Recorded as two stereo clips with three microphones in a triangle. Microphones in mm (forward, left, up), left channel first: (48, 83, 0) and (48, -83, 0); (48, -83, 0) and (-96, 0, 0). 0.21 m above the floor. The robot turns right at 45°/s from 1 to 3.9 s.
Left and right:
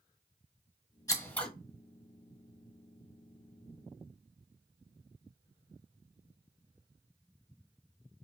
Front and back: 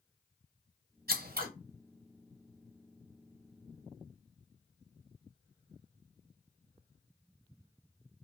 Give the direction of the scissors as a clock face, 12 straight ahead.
7 o'clock.